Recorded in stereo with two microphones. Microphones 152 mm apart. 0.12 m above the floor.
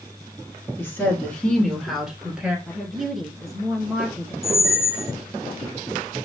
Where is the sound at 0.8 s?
15° left (ahead or behind), 1.2 m; by 2.6 s 10° right (ahead or behind), 1.3 m.